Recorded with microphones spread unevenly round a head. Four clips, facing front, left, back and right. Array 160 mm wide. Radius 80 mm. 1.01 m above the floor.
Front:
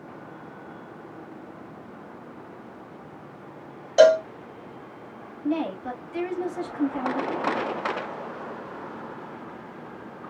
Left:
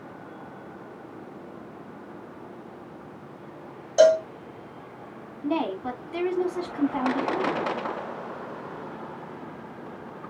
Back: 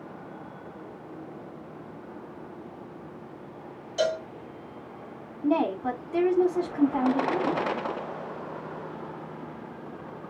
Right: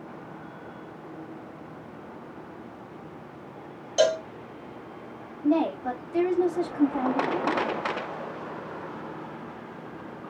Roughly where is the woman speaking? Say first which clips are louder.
Right 3 dB, back 3 dB; behind.